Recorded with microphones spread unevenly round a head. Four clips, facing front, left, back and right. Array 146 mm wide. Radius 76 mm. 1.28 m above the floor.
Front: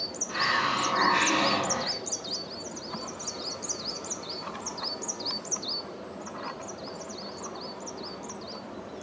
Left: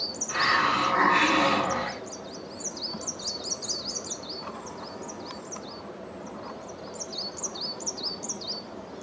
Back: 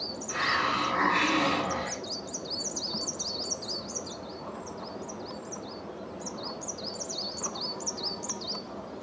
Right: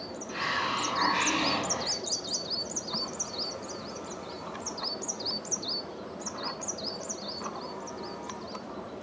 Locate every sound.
0.3 s a hiss: 60° left, 7.5 m